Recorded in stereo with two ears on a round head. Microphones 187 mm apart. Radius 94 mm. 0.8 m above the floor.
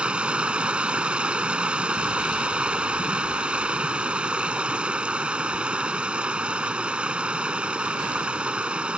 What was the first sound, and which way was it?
Running water, 5° right (ahead or behind).